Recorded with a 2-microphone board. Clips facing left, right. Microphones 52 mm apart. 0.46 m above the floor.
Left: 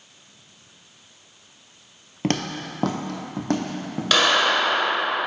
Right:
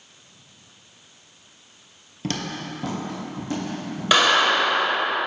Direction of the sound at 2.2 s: 45° left (ahead or behind).